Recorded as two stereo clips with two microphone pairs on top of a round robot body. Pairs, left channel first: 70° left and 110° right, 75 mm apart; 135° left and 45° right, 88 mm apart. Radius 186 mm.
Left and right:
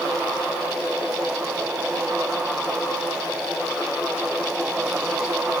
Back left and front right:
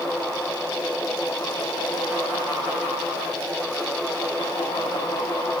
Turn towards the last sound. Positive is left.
No sound to turn to.